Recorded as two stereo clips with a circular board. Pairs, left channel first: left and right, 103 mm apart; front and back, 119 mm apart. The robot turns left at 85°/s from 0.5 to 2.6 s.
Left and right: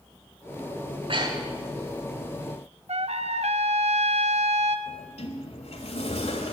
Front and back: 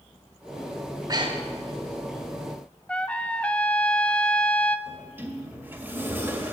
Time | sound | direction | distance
0.8 | breathing | 100° right | 1.8 m
2.9 | a trumpet | 80° right | 0.6 m
4.9 | a sliding door | 105° left | 1.6 m